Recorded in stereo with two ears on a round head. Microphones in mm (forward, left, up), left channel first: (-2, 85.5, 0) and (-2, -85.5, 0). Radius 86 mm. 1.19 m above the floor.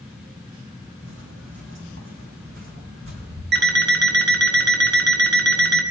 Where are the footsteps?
65° right (ahead or behind), 3 m; by 3.4 s 75° right (ahead or behind), 5 m.